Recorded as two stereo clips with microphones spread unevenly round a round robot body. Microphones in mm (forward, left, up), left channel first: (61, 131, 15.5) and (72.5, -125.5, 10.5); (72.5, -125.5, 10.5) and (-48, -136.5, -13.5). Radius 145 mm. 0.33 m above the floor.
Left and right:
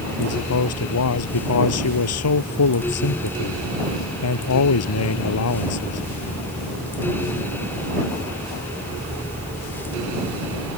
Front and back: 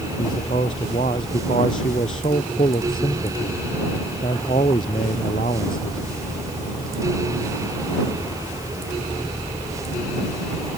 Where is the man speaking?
70° left.